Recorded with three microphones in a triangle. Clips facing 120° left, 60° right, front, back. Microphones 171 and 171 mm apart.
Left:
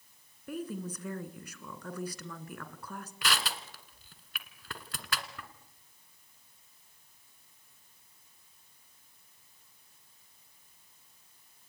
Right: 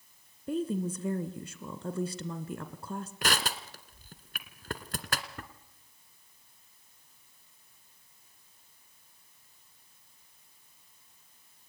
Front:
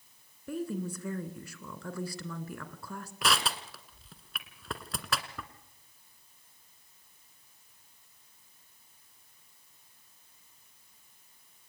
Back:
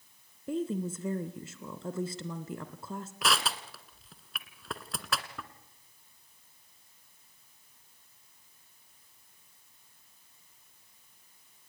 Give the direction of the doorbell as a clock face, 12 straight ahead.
No doorbell in this recording.